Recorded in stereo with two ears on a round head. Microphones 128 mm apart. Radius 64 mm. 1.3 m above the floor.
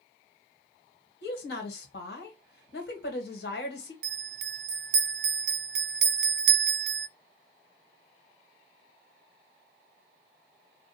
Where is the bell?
80° right, 0.5 m.